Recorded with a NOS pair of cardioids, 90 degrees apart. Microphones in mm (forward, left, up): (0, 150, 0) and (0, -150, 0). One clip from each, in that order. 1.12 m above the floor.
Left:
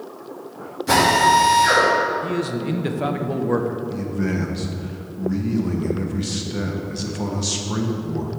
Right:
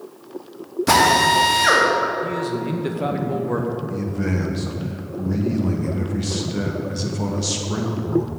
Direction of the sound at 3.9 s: Straight ahead.